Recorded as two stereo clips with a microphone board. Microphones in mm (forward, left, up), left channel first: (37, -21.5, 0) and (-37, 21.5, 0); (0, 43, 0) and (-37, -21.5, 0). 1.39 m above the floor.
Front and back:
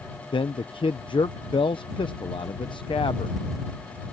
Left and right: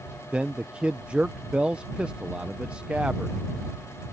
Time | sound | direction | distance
0.3 | a man speaking | 45° right | ?